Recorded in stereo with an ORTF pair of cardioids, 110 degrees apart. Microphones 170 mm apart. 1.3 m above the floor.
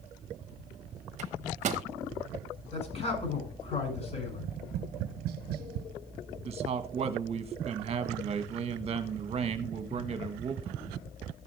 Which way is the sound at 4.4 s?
65° right.